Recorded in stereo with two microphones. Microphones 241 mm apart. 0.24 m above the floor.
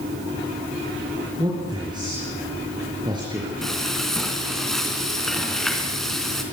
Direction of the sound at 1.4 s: 15° right (ahead or behind).